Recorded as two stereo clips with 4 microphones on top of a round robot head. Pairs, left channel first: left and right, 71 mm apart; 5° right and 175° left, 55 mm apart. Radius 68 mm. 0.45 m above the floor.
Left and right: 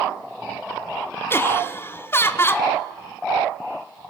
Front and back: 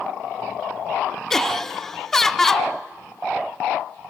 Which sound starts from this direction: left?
Laughter, at 1.3 s.